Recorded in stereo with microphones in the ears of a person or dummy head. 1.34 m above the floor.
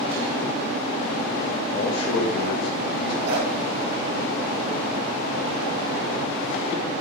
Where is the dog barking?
55° right (ahead or behind), 5 m.